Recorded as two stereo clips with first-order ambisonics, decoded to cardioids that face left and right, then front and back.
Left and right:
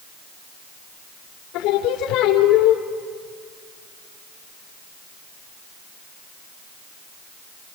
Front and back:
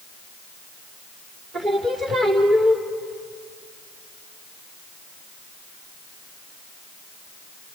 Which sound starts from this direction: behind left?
Singing, at 1.5 s.